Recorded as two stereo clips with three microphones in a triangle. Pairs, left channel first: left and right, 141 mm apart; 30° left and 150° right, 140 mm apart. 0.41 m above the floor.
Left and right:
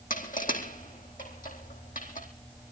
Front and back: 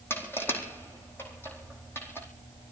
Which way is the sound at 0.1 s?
105° left.